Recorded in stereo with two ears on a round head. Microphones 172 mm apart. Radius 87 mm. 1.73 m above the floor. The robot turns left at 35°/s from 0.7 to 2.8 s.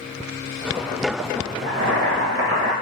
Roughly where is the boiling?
Right.